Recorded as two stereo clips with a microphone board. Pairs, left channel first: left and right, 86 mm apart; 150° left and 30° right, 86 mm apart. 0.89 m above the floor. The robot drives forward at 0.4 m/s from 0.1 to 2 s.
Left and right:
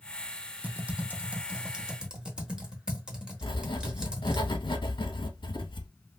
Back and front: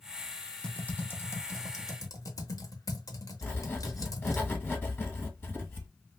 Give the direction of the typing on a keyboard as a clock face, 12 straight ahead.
5 o'clock.